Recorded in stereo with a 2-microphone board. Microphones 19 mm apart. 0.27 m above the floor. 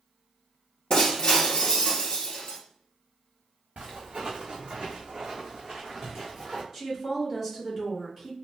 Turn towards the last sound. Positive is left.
turn(degrees=-15)  # may be behind; listen again after turning